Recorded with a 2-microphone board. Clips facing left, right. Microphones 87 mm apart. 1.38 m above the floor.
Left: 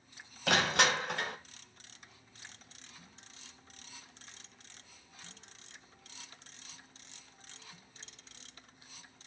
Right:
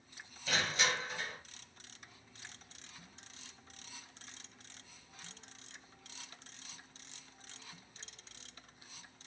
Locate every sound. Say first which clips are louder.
0.5 s crushing: left 6 dB; 60° left (ahead or behind), 0.5 m